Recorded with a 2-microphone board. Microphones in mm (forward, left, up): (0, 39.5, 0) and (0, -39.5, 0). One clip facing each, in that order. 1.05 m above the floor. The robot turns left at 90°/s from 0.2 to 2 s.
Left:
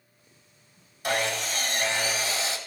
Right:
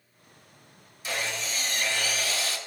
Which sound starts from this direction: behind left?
Sawing, at 1.0 s.